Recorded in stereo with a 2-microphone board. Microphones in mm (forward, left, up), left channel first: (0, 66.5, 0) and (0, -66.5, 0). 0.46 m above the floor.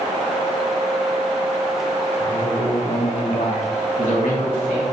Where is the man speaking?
40° left (ahead or behind), 1.6 m; by 4.8 s 70° left (ahead or behind), 3 m.